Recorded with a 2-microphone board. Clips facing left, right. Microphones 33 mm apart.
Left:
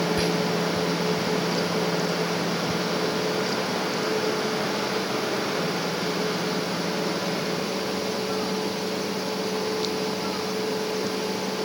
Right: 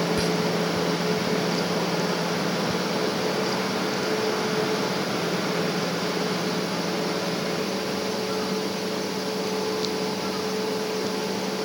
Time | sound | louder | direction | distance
0.2 | whispering | even | 15° left (ahead or behind) | ?